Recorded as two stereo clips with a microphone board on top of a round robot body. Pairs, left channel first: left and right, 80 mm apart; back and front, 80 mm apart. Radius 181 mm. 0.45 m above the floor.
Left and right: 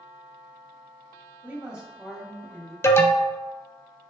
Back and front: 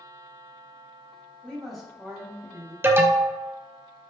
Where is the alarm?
50° left, 0.5 m.